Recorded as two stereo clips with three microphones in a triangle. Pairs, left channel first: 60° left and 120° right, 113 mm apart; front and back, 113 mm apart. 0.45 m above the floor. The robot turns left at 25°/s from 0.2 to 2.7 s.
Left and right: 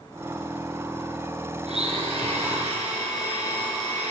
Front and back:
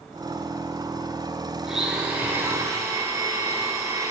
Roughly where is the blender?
Right.